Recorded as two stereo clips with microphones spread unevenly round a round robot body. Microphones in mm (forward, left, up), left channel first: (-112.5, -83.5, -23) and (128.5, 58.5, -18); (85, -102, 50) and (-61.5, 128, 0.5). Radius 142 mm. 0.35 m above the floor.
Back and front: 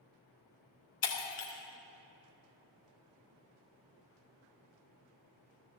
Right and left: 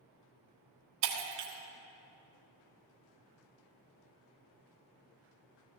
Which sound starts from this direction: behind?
Breaking glass, at 1.0 s.